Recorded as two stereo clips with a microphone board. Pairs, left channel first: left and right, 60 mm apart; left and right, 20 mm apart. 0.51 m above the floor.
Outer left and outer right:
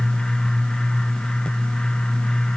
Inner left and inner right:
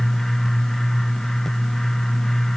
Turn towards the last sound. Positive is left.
No sound to turn to.